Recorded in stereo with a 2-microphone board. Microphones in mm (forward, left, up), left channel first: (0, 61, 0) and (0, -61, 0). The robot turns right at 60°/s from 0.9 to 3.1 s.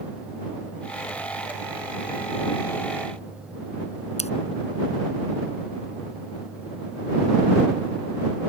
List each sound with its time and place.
4.2 s scissors: 65° left (ahead or behind)